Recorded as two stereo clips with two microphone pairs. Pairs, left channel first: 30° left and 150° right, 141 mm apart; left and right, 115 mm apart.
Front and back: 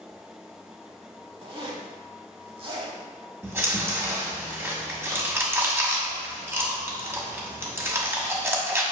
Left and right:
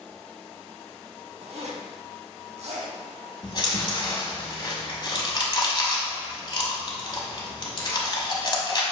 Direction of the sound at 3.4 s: 140° left.